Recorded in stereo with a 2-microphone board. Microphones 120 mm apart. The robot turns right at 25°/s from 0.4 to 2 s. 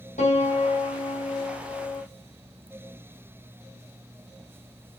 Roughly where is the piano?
Left.